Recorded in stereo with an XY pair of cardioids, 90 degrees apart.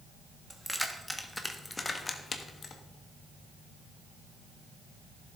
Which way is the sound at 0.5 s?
10° right.